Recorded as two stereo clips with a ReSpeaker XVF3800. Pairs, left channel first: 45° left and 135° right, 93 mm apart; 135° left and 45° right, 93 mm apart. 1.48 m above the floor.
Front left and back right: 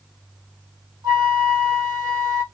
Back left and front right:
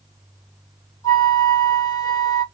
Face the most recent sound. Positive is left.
turn(degrees=-175)